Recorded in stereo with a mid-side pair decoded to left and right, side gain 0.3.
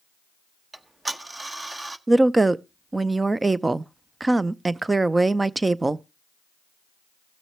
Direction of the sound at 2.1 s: 30° right.